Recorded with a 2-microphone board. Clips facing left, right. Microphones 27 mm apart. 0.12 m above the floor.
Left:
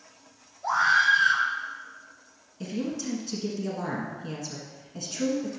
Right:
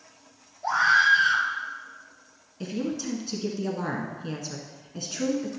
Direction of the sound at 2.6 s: 20° right (ahead or behind).